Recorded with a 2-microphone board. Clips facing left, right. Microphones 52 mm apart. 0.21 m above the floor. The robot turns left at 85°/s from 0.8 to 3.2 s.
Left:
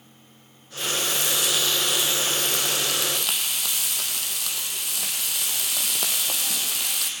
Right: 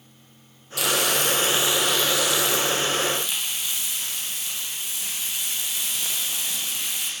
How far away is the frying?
About 3.5 m.